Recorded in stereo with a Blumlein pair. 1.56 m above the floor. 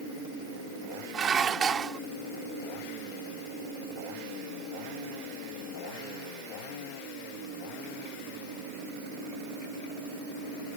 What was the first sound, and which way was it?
Dishes clattering, 20° right.